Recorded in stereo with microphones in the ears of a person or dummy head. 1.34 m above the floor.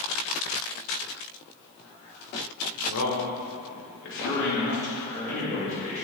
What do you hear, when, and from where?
2.9 s a man speaking: 80° left, 1.4 m; by 6.0 s 40° left (ahead or behind), 2.5 m